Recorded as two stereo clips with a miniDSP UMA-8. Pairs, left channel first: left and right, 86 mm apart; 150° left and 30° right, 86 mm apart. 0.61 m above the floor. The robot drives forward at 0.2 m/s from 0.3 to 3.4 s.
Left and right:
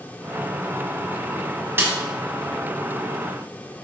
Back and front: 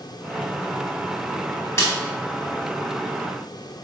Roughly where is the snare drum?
Behind right.